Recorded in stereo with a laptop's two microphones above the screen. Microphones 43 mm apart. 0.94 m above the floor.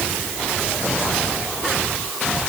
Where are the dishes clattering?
I don't hear dishes clattering.